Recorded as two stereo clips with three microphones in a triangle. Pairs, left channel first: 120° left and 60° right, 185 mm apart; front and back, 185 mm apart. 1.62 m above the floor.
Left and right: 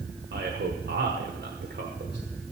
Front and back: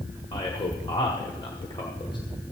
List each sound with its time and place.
0.3 s a man speaking: 65° right, 1.1 m